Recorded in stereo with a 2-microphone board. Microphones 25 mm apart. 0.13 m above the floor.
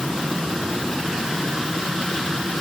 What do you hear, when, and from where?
Only background noise.